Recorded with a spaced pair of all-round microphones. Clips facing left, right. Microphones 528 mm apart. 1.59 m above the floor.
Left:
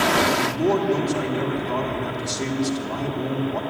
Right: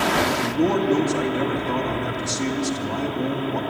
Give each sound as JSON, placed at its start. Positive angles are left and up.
{"t": 0.3, "sound": "a man speaking", "side_deg": -65, "distance_m": 2.5}